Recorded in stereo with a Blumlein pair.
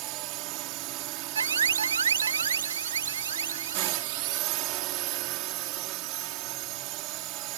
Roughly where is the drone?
Ahead right.